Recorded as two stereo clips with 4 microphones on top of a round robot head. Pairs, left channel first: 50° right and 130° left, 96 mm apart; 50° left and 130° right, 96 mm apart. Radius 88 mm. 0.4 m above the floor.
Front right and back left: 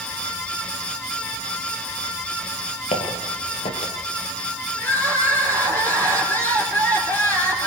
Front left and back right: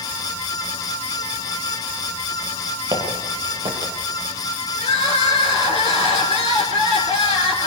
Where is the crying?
20° left, 5.5 m.